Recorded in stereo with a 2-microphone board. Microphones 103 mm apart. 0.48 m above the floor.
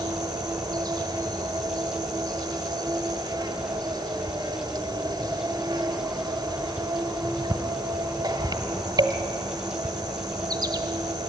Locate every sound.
0.0 s an insect: 45° right (ahead or behind), 1.5 m